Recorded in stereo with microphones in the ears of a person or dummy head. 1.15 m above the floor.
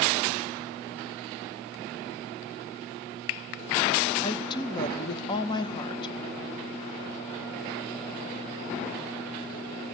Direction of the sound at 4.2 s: 25° left (ahead or behind).